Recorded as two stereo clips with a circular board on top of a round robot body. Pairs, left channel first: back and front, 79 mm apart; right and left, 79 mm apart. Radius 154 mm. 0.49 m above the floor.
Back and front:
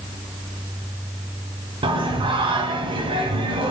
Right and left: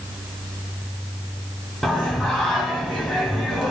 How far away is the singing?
About 0.7 m.